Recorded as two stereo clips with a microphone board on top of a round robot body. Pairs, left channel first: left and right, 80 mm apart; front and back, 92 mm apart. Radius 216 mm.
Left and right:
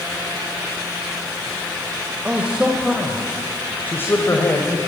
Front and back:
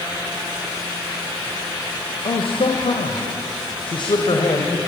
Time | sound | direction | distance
2.2 | a man speaking | 20° right | 2.5 m